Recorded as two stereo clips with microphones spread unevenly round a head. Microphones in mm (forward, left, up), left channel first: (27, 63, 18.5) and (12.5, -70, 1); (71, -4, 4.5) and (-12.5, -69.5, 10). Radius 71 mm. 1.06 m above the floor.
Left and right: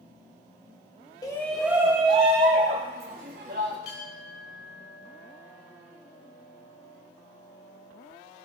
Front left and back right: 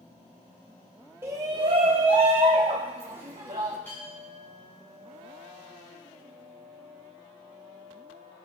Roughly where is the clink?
Behind left.